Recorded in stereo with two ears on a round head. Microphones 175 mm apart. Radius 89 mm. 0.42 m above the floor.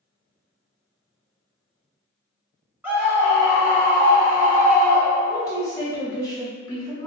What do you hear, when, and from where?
2.8 s a scream: 10° right (ahead or behind), 1.1 m
5.3 s a woman speaking: 20° left (ahead or behind), 1.1 m